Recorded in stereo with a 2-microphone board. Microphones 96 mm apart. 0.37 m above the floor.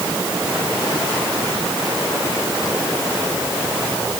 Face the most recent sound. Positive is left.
No sound to turn to.